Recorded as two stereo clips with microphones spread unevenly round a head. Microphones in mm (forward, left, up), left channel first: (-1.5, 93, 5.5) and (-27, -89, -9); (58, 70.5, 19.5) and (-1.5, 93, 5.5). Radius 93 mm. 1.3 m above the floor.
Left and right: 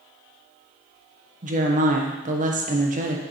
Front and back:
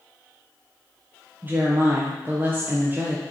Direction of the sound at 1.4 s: 140° right.